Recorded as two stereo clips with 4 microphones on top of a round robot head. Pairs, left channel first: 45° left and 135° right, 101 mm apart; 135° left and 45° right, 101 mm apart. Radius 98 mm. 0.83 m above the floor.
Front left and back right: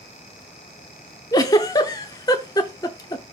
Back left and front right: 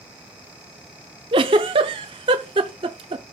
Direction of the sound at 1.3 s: 10° right.